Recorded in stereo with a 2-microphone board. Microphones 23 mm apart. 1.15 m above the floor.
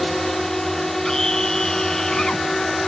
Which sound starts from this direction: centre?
A drone, at 0.0 s.